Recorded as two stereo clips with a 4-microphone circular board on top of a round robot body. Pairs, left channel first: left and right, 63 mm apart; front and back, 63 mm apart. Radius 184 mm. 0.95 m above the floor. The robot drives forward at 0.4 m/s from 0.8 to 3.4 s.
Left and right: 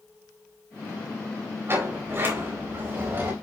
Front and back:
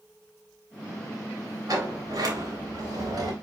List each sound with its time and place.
1.7 s a sliding door: 145° right, 3.5 m; by 3.3 s 150° right, 4 m